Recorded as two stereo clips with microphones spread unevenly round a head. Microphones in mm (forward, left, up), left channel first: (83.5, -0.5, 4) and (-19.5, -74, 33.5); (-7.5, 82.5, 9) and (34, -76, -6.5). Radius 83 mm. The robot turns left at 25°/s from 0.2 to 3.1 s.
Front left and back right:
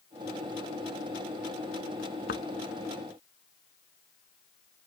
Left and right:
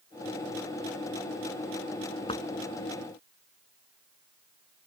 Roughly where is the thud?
Ahead left.